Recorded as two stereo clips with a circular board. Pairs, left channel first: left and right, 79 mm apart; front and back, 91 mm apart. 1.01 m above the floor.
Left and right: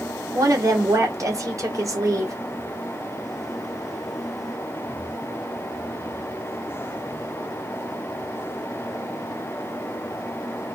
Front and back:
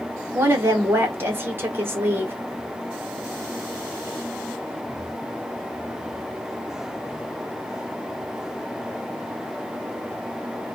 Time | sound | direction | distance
0.3 | a woman speaking | 120° right | 1.0 m